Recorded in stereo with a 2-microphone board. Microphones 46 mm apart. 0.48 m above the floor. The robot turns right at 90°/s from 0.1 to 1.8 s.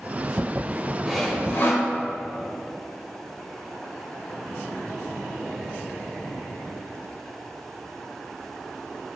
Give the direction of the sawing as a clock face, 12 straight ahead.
12 o'clock.